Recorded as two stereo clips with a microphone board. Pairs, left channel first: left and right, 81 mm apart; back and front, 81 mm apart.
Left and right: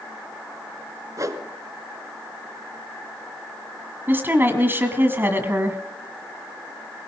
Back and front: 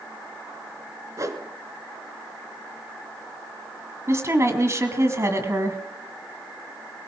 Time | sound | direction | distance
1.2 | a whoosh | 45° right | 1.0 m
4.1 | a woman speaking | 35° right | 1.6 m